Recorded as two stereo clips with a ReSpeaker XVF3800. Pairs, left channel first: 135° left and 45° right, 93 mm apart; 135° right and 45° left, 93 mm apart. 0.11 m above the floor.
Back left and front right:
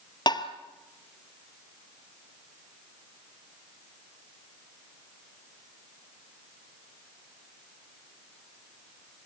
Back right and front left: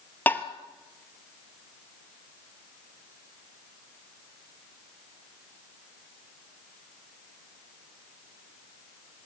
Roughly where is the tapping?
Behind.